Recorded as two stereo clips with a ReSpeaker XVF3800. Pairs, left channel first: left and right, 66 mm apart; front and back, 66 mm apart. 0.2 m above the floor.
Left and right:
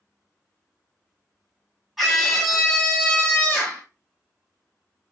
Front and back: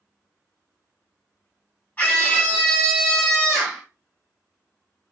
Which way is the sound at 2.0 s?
Straight ahead.